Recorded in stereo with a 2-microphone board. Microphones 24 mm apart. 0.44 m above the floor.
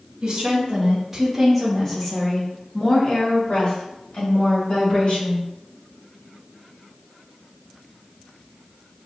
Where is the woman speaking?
35° right (ahead or behind), 1.4 m; by 5.5 s 70° left (ahead or behind), 3 m.